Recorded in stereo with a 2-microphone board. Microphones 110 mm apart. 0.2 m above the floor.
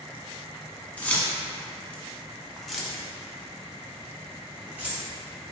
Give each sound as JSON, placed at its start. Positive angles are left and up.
{"t": 1.0, "sound": "keys jangling", "side_deg": 15, "distance_m": 1.2}